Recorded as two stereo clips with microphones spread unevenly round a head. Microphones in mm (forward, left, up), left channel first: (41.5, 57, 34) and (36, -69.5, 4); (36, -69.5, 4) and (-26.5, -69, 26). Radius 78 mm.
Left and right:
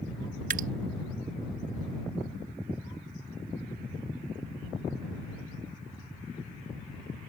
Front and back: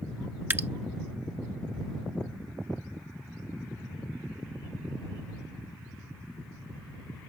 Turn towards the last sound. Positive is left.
turn(degrees=-130)